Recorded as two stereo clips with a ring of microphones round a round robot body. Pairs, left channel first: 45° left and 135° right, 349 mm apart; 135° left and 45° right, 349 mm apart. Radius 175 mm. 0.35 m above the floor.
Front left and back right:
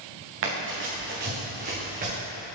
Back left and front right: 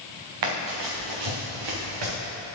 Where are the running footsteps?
80° right, 2 m; by 2.1 s 65° right, 3 m.